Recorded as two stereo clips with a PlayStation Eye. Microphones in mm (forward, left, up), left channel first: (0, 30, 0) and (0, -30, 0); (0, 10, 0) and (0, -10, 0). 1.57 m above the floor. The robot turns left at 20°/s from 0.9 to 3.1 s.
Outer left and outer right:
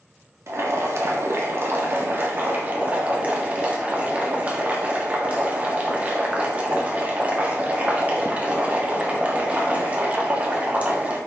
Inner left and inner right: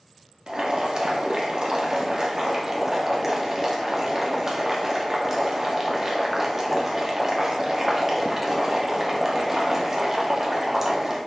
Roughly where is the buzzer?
I don't hear a buzzer.